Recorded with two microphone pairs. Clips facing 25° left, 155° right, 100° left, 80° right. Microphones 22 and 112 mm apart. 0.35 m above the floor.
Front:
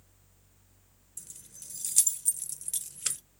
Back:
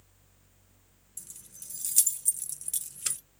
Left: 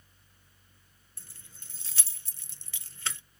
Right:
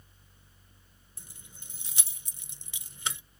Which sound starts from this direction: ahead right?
Keys jangling, at 1.2 s.